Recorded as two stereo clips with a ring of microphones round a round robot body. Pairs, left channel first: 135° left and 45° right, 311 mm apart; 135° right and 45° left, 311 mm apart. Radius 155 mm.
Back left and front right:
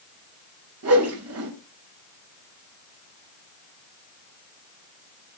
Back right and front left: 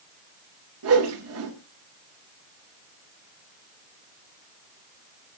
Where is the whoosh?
Straight ahead, 4.5 m.